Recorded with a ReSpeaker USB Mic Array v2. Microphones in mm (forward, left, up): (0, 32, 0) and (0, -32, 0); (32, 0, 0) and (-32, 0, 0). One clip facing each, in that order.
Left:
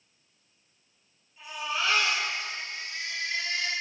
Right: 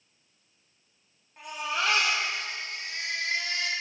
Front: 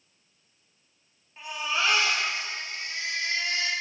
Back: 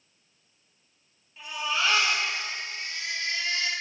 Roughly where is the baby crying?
Ahead right.